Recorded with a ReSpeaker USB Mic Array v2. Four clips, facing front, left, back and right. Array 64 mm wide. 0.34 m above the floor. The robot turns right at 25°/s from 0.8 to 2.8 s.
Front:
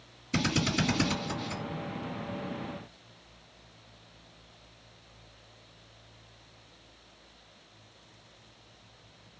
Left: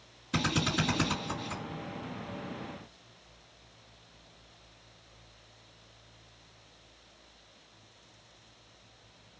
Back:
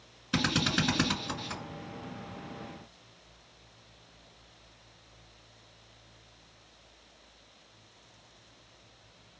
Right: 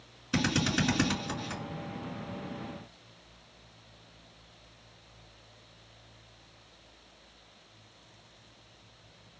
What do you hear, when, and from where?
0.3 s a drill: 160° right, 2 m; by 1.6 s 140° right, 2 m